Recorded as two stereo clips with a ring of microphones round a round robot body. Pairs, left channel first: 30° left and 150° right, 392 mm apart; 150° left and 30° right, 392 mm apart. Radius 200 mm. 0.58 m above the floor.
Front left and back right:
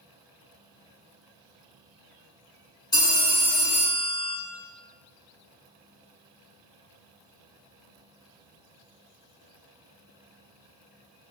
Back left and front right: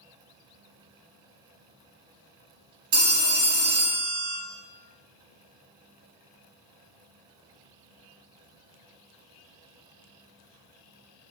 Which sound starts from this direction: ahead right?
A phone ringing, at 2.9 s.